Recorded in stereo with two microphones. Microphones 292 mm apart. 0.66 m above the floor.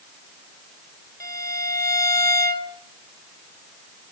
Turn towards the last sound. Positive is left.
turn(degrees=10)  # may be behind; listen again after turning